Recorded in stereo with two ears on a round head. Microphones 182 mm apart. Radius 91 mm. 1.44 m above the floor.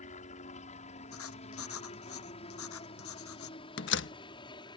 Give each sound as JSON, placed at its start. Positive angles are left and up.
{"t": 0.0, "sound": "a helicopter", "side_deg": 35}
{"t": 1.1, "sound": "writing", "side_deg": 80}
{"t": 3.8, "sound": "a door slam", "side_deg": 65}